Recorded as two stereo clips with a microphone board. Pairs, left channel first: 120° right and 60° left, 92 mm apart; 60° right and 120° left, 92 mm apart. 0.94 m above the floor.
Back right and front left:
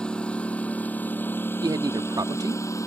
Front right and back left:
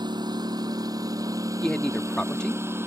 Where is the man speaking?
20° left.